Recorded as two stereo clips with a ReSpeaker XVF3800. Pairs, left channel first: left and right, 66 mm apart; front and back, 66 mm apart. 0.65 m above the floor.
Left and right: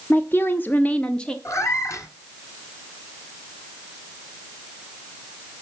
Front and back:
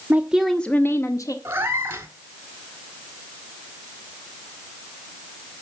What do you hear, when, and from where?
0.1 s a woman speaking: 130° left, 0.9 m; by 1.4 s 10° left, 1.3 m
1.4 s a cat meowing: 130° left, 1.4 m